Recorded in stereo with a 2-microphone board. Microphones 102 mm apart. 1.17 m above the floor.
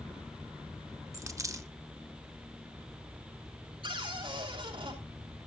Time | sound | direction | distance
1.1 | a dropped coin | 35° right (ahead or behind) | 0.8 m
3.8 | a cupboard door | 60° right (ahead or behind) | 6.5 m